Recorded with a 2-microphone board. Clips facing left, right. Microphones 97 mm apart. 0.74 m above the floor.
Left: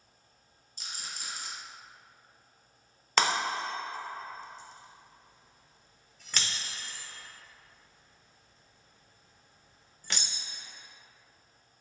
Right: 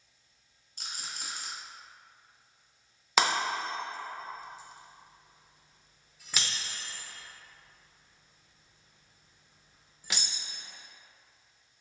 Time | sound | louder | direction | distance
0.8 | a rattle | right 1 dB | 50° right (ahead or behind) | 1.0 m
3.2 | breaking glass | even | 5° right (ahead or behind) | 0.6 m